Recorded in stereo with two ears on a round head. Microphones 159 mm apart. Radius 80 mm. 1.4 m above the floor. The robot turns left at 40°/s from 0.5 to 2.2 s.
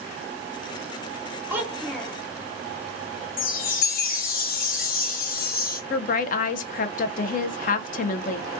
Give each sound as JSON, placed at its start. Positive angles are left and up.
{"t": 1.5, "sound": "a child speaking", "side_deg": -15, "distance_m": 0.9}
{"t": 3.4, "sound": "a chime", "side_deg": 55, "distance_m": 0.6}
{"t": 5.9, "sound": "a woman speaking", "side_deg": 45, "distance_m": 0.5}